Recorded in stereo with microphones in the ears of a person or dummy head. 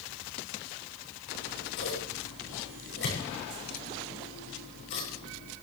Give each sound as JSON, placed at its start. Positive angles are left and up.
{"t": 1.3, "sound": "scissors", "side_deg": 65, "distance_m": 7.0}